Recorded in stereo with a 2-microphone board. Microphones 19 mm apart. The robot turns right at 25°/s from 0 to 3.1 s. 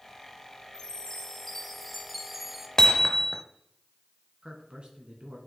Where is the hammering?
30° left (ahead or behind), 0.6 m; by 3.4 s 25° left (ahead or behind), 0.6 m.